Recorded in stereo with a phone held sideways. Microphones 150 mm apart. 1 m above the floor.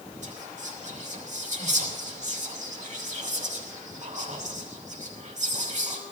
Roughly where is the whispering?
Right.